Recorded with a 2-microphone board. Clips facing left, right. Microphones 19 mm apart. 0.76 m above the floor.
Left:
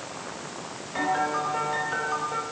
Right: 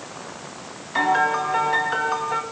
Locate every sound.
0.9 s a piano: 35° right (ahead or behind), 4 m